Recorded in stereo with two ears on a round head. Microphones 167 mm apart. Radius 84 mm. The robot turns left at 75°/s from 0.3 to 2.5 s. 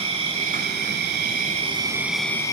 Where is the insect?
40° right, 1.0 m; by 2.5 s 155° left, 1.0 m.